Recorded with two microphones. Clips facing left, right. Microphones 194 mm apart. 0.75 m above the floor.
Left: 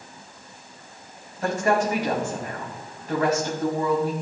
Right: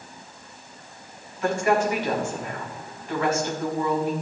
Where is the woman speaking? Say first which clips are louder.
Even; 40° left (ahead or behind), 5.5 m.